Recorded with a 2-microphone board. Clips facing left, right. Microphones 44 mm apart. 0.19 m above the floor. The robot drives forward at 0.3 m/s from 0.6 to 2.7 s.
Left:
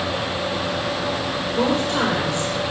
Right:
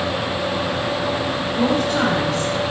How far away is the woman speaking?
About 6 m.